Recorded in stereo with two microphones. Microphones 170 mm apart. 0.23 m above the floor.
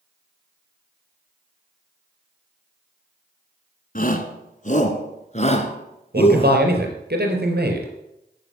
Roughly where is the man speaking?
Right.